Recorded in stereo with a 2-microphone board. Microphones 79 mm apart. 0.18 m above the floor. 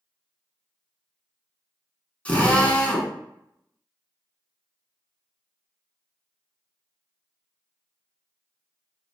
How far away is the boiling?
I don't hear boiling.